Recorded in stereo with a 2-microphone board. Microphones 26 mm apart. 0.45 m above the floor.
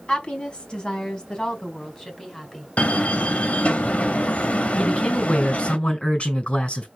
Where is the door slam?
65° left (ahead or behind), 1.2 m.